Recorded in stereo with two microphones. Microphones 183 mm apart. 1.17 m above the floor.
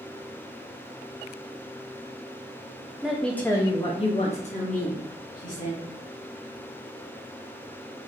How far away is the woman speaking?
About 0.6 m.